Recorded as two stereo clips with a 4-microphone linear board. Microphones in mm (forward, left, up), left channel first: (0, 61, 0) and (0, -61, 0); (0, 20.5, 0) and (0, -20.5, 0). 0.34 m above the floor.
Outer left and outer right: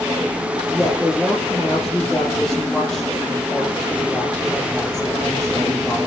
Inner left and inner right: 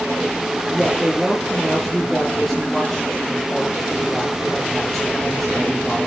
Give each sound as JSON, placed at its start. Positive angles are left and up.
{"t": 0.7, "sound": "a woman speaking", "side_deg": 5, "distance_m": 7.0}